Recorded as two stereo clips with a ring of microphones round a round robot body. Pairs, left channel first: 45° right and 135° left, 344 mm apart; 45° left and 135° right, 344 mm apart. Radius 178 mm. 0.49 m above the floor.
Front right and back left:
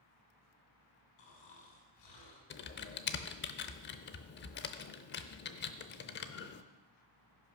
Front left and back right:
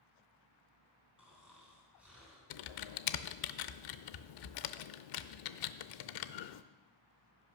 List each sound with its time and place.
1.2 s snoring: 50° right, 3.5 m
2.5 s typing on a keyboard: 15° left, 0.6 m